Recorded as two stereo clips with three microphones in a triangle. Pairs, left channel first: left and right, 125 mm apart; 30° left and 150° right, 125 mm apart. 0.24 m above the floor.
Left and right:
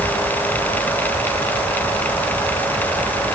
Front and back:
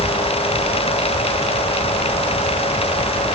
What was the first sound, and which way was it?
Only background noise.